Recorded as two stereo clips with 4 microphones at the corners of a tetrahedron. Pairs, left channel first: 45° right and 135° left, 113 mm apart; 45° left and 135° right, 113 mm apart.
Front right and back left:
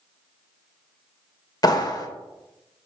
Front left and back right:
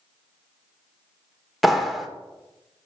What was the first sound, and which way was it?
A clap, 45° right.